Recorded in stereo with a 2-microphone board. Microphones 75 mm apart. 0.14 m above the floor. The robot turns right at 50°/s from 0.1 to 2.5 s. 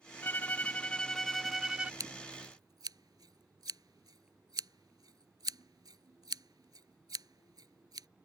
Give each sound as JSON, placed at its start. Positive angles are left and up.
{"t": 0.2, "sound": "a violin", "azimuth_deg": 120}
{"t": 2.0, "sound": "scissors", "side_deg": -55}